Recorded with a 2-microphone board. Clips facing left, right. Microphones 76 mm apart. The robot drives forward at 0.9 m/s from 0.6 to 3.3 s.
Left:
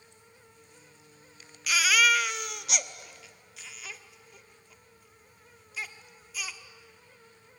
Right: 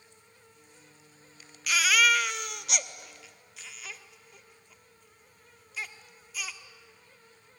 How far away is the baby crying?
About 0.6 m.